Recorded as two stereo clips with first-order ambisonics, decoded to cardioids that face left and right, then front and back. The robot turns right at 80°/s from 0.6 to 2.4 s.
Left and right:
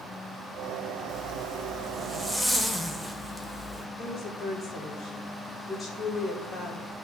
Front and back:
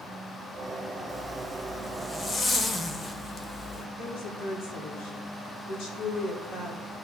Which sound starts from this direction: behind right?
A zipper, at 1.1 s.